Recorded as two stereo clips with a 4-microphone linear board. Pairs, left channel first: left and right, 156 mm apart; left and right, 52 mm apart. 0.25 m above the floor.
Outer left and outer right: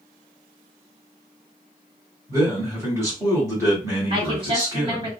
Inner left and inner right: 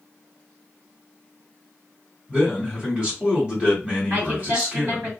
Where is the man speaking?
20° right (ahead or behind), 1.2 m.